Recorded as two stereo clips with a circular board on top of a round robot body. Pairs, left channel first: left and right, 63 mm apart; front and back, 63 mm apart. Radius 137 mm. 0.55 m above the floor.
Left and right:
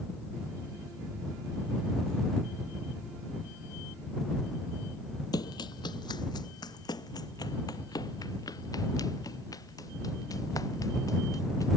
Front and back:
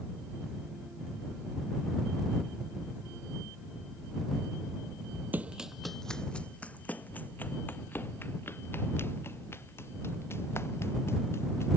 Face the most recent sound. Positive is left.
turn(degrees=55)